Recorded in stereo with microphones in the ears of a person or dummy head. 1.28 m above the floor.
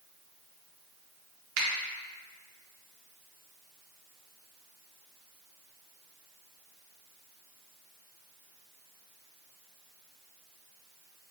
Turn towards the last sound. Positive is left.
turn(degrees=-60)  # may be behind; listen again after turning